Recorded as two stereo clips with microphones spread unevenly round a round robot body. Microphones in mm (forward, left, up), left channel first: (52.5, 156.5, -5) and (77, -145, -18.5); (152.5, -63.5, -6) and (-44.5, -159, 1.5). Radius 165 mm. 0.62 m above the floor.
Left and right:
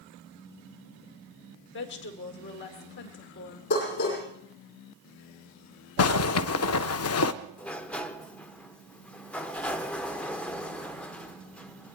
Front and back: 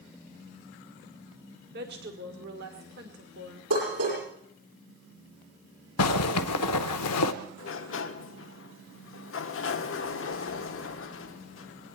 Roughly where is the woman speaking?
Behind left.